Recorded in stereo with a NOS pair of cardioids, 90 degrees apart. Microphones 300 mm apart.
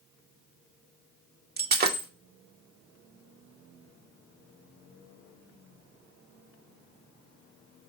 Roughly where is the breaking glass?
Ahead right.